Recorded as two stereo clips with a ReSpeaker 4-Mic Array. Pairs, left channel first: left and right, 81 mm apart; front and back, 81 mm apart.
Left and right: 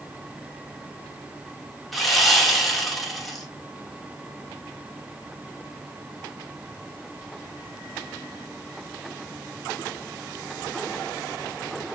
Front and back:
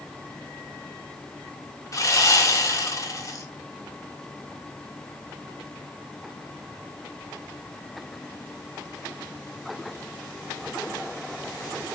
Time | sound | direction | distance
1.9 | sawing | straight ahead | 1.7 m